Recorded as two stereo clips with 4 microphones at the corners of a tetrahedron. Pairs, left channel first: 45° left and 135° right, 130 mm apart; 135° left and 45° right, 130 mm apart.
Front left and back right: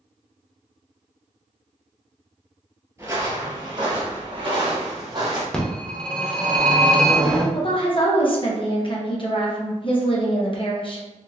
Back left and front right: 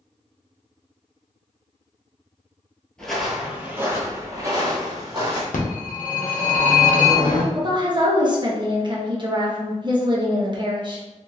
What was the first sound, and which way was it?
Footsteps, 150° right.